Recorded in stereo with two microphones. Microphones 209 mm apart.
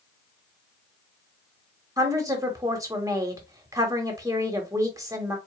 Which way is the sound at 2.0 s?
15° right (ahead or behind).